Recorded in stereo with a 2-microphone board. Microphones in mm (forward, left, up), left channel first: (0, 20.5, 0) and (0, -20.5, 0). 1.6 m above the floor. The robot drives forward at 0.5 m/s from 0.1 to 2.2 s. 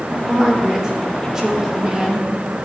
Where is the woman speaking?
10° right (ahead or behind), 2.5 m; by 2.6 s 20° right (ahead or behind), 1.5 m.